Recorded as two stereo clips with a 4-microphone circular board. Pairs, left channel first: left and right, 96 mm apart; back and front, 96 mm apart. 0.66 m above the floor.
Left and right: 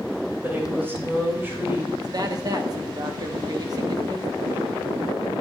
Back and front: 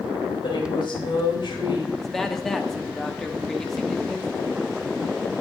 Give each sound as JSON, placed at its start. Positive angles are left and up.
{"t": 0.4, "sound": "a woman speaking", "azimuth_deg": -155, "distance_m": 3.0}
{"t": 2.0, "sound": "a man speaking", "azimuth_deg": -95, "distance_m": 1.0}